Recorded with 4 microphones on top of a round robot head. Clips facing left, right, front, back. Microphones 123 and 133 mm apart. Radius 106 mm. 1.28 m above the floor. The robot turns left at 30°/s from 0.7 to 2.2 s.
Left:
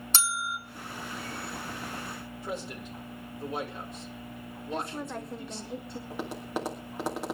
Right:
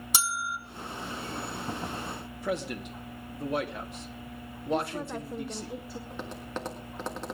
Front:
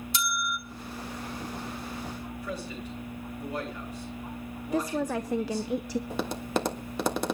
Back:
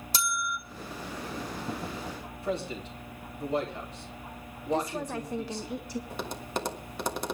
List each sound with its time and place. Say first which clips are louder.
0.1 s a bell: even, even; 160° right, 0.9 m
2.3 s a man speaking: right 6 dB, back 8 dB; 110° right, 3 m
4.7 s a woman speaking: right 4 dB, front 2 dB; straight ahead, 0.7 m
6.1 s tapping: left 5 dB, front 6 dB; 5° left, 1.5 m